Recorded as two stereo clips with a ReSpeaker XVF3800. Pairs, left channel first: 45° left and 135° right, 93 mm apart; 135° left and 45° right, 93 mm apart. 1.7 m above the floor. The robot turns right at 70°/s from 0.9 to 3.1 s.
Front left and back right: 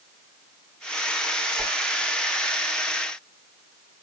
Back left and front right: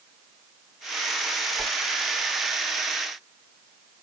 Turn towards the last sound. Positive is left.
turn(degrees=0)